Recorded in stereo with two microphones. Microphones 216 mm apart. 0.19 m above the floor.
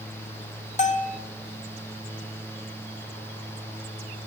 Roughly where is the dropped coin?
No dropped coin in this recording.